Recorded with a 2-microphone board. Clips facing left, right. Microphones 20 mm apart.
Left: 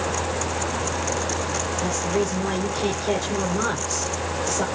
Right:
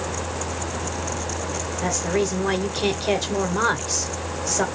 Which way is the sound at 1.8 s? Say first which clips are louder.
Right 3 dB; 30° right (ahead or behind).